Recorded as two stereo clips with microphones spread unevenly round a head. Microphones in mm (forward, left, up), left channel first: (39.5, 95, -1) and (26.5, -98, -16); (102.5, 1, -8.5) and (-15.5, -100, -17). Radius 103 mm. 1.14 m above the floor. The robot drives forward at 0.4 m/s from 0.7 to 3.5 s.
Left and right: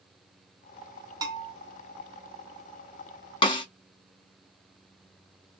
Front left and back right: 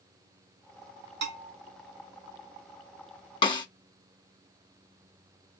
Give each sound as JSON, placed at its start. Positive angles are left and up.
{"t": 1.2, "sound": "a bell", "azimuth_deg": -165, "distance_m": 0.7}
{"t": 3.4, "sound": "a snare drum", "azimuth_deg": 55, "distance_m": 0.7}